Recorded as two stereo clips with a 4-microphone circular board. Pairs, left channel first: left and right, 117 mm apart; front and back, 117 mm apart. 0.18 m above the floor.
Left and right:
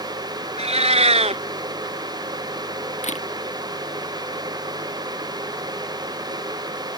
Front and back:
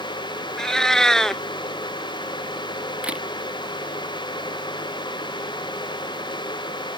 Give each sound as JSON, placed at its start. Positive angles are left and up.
{"t": 0.6, "sound": "a cat meowing", "azimuth_deg": -85}
{"t": 3.0, "sound": "a camera shutter", "azimuth_deg": 100}